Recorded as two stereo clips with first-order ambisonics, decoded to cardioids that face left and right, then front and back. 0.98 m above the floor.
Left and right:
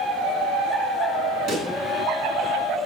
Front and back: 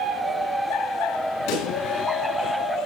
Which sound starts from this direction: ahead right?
A pop, at 1.5 s.